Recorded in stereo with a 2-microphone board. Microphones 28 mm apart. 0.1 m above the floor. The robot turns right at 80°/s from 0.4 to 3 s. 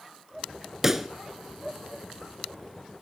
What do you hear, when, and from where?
0.8 s a pop: 15° right (ahead or behind), 1.2 m; by 1.1 s 10° right (ahead or behind), 1.2 m